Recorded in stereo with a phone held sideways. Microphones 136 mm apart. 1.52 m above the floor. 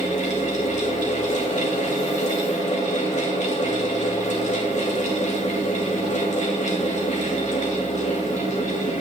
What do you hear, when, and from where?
0.0 s a fan: 60° left (ahead or behind), 2.5 m